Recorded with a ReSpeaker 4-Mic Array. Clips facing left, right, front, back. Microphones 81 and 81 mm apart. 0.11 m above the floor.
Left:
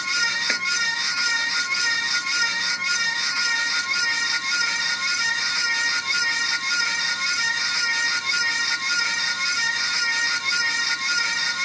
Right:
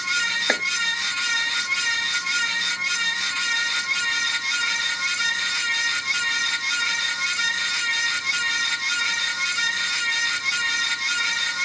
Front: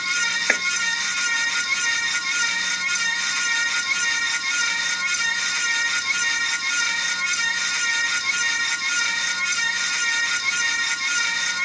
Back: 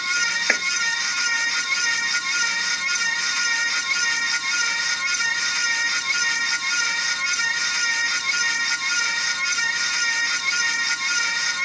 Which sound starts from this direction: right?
Chopping, at 0.5 s.